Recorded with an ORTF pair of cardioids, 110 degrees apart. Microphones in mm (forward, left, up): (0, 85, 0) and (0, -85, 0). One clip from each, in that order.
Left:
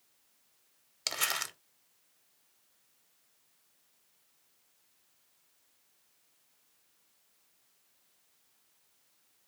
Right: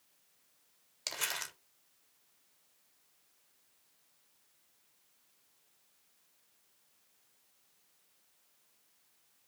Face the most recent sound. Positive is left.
turn(degrees=25)